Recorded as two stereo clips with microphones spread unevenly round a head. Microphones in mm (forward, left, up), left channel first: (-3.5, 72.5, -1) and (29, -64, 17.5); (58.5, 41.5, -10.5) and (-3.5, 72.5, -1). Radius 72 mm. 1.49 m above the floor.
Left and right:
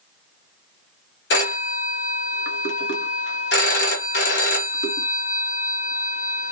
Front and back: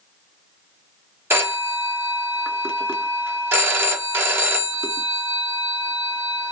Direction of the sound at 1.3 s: 100° left.